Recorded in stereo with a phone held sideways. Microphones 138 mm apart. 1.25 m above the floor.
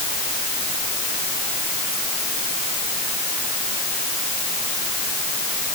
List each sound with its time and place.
Only background noise.